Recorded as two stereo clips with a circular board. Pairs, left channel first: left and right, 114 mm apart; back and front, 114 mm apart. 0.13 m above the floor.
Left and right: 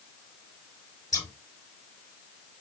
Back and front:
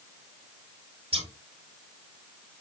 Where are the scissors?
30° left, 4.5 m.